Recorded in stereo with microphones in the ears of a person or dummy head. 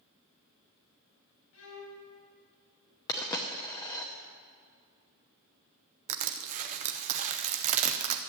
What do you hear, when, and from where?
1.5 s a violin: 80° left, 6 m
3.1 s a dropped coin: 15° left (ahead or behind), 0.9 m
6.1 s crushing: 40° right (ahead or behind), 0.8 m